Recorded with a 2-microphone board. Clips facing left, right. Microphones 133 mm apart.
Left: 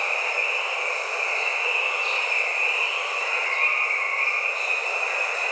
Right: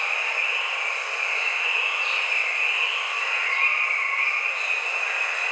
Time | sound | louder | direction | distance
0.0 | running water | left 3 dB | 35° left (ahead or behind) | 0.9 m